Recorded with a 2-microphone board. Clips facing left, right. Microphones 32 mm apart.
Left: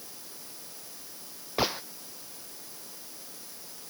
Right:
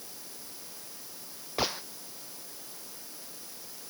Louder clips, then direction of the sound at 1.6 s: Left 3 dB; 10° left (ahead or behind).